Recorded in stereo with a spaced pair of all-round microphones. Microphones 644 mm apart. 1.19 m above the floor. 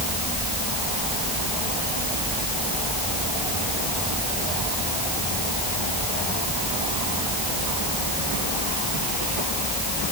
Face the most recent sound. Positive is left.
No sound to turn to.